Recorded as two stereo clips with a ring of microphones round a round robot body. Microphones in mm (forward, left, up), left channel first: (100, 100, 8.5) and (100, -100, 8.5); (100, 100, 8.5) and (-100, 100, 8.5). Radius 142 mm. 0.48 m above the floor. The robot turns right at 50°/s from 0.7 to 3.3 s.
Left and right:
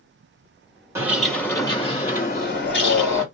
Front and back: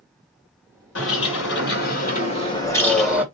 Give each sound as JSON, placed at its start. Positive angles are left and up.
{"t": 0.9, "sound": "a bird", "azimuth_deg": -15, "distance_m": 2.5}